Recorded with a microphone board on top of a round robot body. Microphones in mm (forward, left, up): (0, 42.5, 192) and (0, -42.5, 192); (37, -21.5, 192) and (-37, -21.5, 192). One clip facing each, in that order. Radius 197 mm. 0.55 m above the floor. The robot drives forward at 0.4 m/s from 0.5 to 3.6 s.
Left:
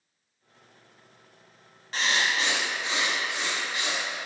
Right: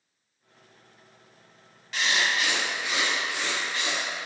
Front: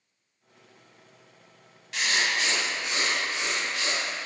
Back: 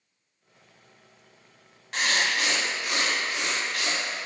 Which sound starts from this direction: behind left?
Writing, at 1.9 s.